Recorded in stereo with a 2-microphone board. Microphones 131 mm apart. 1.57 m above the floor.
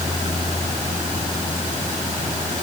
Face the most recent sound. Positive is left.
No sound to turn to.